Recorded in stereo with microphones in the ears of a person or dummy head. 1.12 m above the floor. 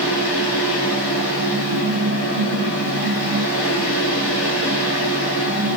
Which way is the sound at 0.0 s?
10° right (ahead or behind).